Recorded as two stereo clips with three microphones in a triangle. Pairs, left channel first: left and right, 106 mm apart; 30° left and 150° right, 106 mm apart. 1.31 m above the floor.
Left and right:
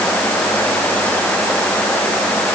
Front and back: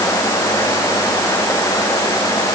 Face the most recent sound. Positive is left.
No sound to turn to.